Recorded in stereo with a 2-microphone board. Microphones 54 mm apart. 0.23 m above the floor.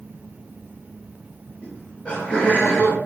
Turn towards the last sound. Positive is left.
turn(degrees=20)  # may be behind; listen again after turning